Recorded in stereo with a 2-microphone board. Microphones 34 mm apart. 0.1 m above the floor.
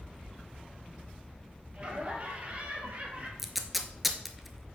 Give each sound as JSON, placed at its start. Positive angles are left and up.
{"t": 1.8, "sound": "laughter", "side_deg": -40, "distance_m": 2.0}
{"t": 3.4, "sound": "tape being pulled", "side_deg": -5, "distance_m": 0.6}